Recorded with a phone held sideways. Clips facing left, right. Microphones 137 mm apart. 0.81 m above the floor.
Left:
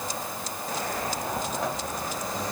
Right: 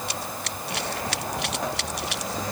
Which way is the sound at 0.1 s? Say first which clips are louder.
Right 1 dB; 75° right (ahead or behind).